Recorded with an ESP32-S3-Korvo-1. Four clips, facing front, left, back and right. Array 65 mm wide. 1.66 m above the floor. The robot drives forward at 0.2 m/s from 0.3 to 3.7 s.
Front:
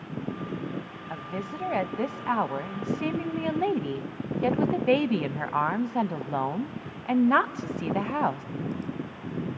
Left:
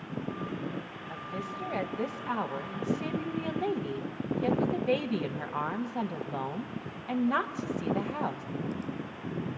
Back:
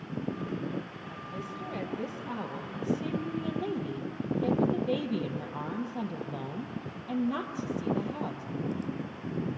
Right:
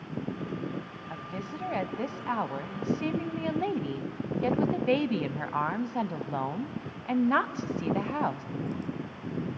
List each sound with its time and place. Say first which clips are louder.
1.1 s a woman speaking: left 1 dB, front 6 dB; 5° right, 1.1 m